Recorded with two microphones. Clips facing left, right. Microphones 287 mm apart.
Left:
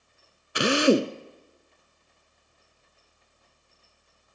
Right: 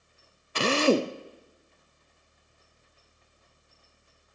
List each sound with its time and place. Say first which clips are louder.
0.6 s a drill: left 3 dB; 15° left (ahead or behind), 0.7 m